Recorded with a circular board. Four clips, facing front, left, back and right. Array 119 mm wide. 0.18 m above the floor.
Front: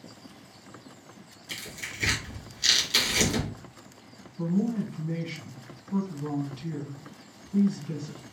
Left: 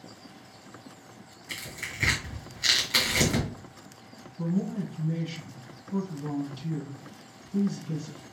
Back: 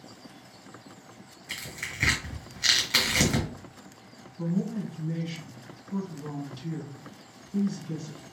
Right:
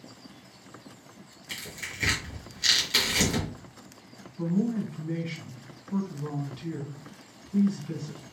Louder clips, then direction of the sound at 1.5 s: Left 1 dB, back 1 dB; 160° left.